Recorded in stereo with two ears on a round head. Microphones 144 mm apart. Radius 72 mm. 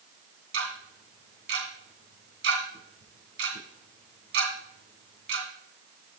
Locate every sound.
0.5 s ticking: 80° right, 2.5 m